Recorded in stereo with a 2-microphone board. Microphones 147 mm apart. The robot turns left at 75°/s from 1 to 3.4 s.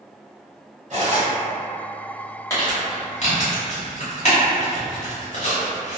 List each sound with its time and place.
0.9 s cutlery clinking: 55° right (ahead or behind), 1.0 m; by 1.3 s 60° right (ahead or behind), 1.0 m
2.5 s crumpling: 20° left (ahead or behind), 1.3 m; by 6.0 s 55° left (ahead or behind), 1.3 m